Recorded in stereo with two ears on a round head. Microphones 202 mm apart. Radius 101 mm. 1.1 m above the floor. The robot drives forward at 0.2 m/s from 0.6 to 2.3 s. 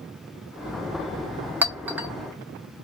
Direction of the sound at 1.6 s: 10° right (ahead or behind).